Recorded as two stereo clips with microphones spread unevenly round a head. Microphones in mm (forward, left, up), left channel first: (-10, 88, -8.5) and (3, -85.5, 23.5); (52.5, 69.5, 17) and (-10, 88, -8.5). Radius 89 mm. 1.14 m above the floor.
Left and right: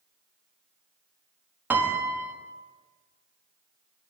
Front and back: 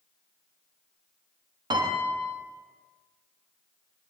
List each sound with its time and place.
1.7 s a piano: 165° right, 1.2 m